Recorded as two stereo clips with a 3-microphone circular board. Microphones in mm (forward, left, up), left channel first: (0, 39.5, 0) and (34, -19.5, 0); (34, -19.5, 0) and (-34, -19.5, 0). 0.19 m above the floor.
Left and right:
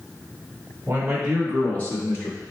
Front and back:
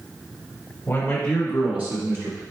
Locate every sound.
0.9 s a man speaking: 30° right, 1.2 m; by 2.4 s 145° left, 1.6 m